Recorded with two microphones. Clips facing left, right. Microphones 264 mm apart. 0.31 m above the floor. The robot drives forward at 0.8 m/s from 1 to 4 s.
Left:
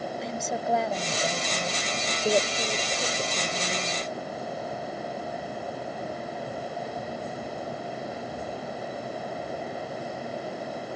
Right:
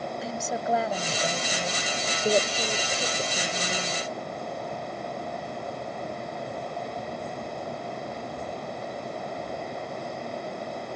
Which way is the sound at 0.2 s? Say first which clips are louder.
Even; centre (ahead or behind).